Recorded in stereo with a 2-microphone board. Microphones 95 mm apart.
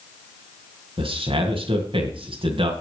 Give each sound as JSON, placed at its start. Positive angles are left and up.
{"t": 1.0, "sound": "a man speaking", "side_deg": -65, "distance_m": 2.5}